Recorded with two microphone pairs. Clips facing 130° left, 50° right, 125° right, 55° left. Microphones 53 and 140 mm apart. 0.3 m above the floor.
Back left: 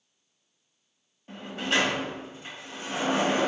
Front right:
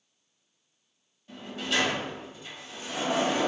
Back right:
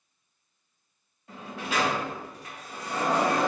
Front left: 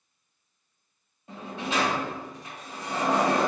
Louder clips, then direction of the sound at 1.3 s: Back left 3 dB, front left 2 dB; 110° left.